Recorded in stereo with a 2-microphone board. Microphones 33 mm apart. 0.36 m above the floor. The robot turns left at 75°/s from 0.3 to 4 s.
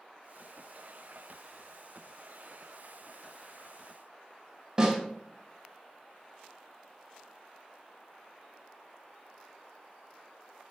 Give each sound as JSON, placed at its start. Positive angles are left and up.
{"t": 4.8, "sound": "a snare drum", "side_deg": -25, "distance_m": 1.2}